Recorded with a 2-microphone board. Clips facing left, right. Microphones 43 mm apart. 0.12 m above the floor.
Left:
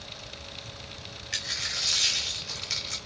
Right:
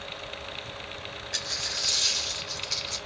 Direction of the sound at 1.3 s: 70° left (ahead or behind).